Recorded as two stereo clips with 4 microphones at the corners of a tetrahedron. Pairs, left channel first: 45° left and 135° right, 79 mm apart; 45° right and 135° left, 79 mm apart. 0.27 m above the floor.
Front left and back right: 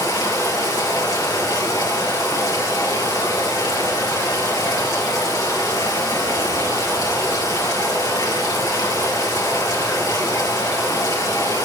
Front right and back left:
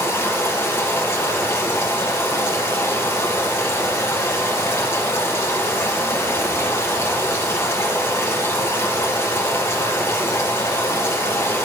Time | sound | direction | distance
0.0 | running water | 10° left | 3.5 m